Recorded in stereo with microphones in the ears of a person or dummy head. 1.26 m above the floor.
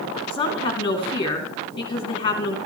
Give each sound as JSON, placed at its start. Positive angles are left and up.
{"t": 0.3, "sound": "a woman speaking", "side_deg": 30, "distance_m": 2.5}